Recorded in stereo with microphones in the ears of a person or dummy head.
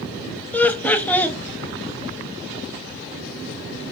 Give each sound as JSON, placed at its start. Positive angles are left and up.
{"t": 0.5, "sound": "laughter", "side_deg": 10, "distance_m": 0.6}